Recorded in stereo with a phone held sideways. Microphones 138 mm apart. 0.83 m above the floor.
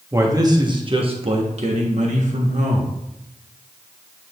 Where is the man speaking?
20° right (ahead or behind), 1.2 m; by 2.9 s 65° right (ahead or behind), 1.5 m.